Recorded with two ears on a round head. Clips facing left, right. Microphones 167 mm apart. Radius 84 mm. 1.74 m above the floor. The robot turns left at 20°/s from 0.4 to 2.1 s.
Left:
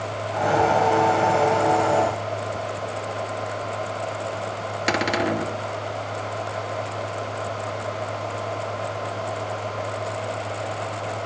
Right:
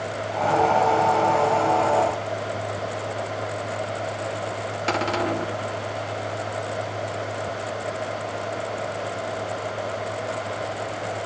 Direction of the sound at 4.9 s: 20° left (ahead or behind).